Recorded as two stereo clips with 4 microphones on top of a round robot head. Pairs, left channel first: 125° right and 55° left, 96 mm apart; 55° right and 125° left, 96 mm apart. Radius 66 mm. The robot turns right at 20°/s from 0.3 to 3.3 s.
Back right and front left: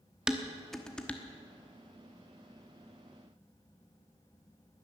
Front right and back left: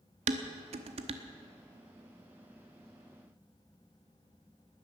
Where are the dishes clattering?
140° left, 1.0 m; by 1.2 s 155° left, 1.0 m.